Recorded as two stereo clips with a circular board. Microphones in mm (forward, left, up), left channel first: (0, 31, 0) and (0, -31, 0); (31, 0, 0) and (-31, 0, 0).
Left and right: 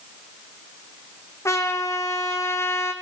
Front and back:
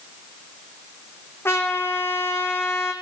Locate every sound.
1.4 s a trumpet: 50° left, 2.5 m